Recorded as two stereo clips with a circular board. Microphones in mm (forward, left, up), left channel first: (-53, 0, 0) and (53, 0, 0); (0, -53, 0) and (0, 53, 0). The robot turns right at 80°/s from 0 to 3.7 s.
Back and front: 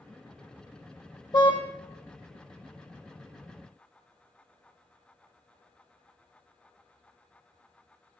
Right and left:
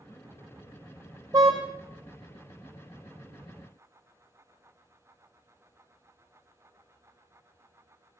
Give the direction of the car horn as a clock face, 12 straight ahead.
7 o'clock.